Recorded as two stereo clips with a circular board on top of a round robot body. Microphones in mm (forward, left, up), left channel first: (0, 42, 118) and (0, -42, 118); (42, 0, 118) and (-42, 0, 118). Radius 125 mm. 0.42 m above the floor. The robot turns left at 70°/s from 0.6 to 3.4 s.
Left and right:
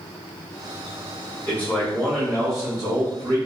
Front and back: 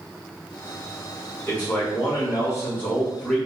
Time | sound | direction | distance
1.5 | a man speaking | 55° left | 1.5 m